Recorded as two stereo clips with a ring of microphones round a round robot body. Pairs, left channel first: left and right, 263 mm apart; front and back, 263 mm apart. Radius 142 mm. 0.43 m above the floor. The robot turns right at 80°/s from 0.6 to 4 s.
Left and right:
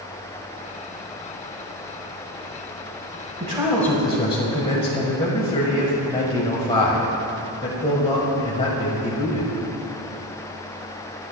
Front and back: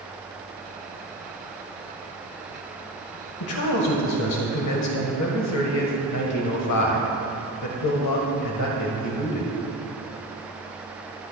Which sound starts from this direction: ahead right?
A man speaking, at 3.4 s.